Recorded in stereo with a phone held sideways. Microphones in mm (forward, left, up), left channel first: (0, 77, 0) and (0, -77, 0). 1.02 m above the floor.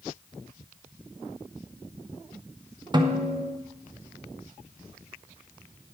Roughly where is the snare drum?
Right.